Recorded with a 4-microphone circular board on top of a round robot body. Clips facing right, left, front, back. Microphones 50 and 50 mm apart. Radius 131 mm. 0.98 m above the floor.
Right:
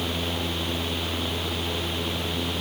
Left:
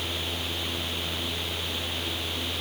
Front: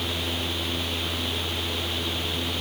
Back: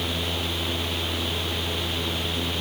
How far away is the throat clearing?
No throat clearing in this recording.